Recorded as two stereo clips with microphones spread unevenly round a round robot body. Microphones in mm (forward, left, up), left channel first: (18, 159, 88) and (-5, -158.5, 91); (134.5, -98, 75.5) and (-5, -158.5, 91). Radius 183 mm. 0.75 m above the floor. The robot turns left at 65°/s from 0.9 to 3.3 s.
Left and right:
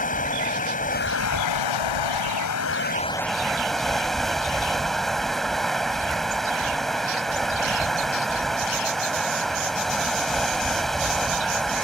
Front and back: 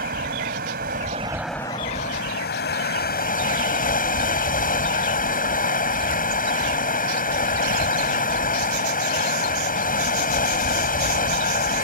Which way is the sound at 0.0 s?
150° left.